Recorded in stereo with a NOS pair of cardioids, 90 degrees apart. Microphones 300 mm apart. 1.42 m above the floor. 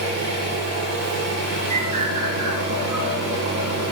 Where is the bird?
70° right, 1.7 m.